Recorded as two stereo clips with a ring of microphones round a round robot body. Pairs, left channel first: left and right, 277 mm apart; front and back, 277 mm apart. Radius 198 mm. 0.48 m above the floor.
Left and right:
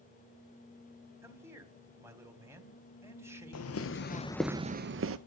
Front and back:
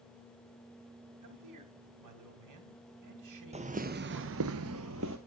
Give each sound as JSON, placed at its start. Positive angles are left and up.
{"t": 1.2, "sound": "a man speaking", "azimuth_deg": -170, "distance_m": 3.0}
{"t": 3.5, "sound": "footsteps", "azimuth_deg": 115, "distance_m": 1.0}